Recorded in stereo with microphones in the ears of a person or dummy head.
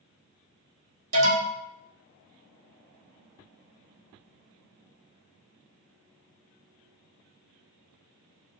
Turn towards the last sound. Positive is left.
turn(degrees=-75)  # may be behind; listen again after turning